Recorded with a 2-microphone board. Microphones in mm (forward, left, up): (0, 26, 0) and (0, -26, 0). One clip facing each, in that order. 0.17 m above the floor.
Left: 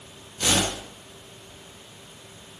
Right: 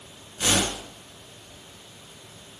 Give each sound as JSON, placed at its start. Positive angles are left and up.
{"t": 0.4, "sound": "a whoosh", "side_deg": -25, "distance_m": 1.6}